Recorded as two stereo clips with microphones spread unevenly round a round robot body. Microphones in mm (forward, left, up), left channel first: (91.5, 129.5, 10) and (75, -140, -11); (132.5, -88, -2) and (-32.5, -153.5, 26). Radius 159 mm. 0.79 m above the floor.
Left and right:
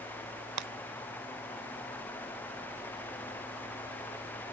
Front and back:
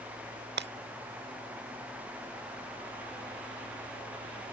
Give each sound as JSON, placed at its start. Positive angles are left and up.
{"t": 0.6, "sound": "breaking glass", "azimuth_deg": -135}